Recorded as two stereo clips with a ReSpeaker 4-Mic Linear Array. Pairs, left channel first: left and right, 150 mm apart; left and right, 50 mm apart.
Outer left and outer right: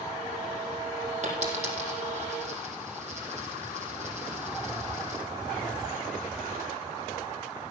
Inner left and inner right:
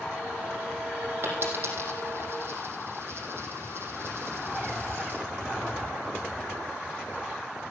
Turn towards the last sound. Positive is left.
turn(degrees=-50)  # may be behind; listen again after turning